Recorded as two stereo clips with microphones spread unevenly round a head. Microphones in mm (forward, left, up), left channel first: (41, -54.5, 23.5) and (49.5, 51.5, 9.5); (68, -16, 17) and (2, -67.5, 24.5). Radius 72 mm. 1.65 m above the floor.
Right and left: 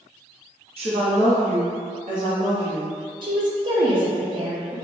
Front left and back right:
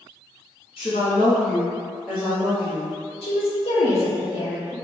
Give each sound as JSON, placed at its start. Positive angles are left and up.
{"t": 0.8, "sound": "a woman speaking", "azimuth_deg": 65, "distance_m": 0.7}
{"t": 3.2, "sound": "a woman speaking", "azimuth_deg": 40, "distance_m": 0.8}